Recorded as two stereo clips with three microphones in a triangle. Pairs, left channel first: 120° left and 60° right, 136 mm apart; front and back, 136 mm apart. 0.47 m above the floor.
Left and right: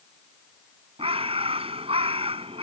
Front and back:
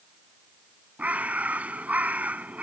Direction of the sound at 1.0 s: 100° right.